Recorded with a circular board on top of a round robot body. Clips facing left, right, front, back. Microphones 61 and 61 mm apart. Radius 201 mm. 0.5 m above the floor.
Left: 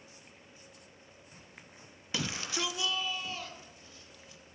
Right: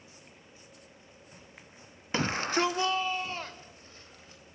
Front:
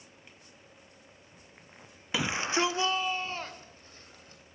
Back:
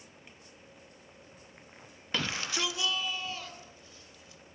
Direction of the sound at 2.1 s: 75° right.